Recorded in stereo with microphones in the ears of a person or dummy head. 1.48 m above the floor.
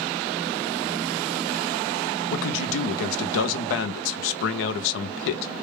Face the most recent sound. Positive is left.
turn(degrees=75)  # may be behind; listen again after turning